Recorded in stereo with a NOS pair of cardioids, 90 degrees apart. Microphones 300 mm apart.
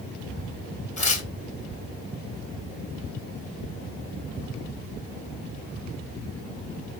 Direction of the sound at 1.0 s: 25° left.